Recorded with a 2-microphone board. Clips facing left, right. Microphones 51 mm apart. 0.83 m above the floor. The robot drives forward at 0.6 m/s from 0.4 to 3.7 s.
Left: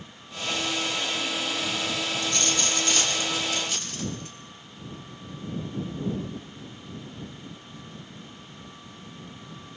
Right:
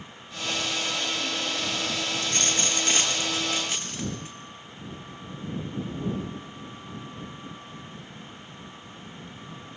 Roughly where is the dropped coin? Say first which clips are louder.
Left 1 dB; right.